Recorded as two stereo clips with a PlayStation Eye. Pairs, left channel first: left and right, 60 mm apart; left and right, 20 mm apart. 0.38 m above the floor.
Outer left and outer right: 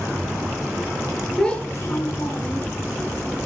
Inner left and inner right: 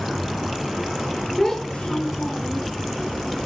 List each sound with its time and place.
1.4 s a child speaking: centre (ahead or behind), 0.6 m; by 2.7 s 70° left (ahead or behind), 1.7 m